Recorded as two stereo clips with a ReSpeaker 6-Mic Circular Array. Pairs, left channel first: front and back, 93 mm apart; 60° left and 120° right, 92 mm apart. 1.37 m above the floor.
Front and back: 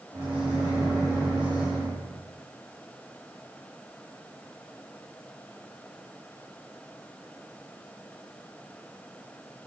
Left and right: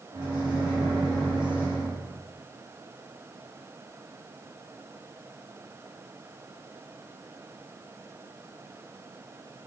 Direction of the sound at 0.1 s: 160° right.